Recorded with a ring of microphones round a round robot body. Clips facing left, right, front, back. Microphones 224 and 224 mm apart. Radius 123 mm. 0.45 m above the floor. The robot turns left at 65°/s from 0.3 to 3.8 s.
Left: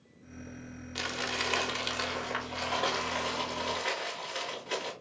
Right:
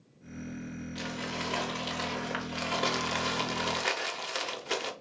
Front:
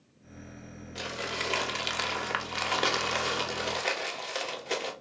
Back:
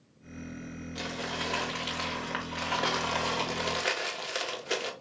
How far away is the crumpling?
About 1.0 m.